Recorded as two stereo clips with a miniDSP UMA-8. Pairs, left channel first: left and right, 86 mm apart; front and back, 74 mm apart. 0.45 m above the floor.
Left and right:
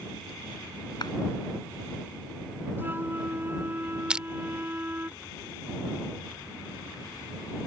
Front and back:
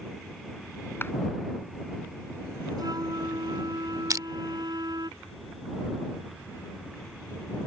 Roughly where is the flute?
Behind right.